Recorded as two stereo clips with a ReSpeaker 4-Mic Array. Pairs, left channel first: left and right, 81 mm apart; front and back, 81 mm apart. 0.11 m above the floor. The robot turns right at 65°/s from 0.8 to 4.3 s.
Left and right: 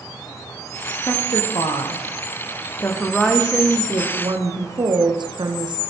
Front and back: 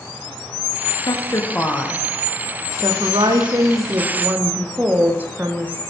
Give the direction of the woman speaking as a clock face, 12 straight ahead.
11 o'clock.